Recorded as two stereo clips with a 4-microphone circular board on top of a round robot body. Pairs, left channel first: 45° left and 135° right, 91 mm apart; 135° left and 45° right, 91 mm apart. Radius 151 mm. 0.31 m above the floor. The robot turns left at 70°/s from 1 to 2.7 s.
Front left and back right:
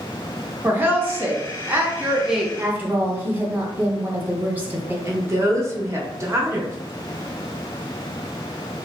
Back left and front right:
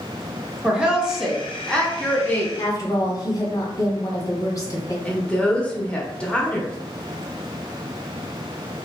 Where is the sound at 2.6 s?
170° left, 1.3 m; by 5.0 s 160° left, 1.3 m.